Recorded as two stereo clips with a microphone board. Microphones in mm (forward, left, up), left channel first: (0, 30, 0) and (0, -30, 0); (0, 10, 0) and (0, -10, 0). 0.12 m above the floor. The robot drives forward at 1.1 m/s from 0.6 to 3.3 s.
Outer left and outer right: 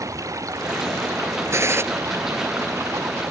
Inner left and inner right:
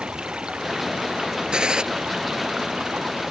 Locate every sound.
0.0 s running water: 65° right (ahead or behind); by 3.3 s 55° right (ahead or behind)
1.5 s a gunshot: 55° right (ahead or behind); by 1.8 s 50° right (ahead or behind)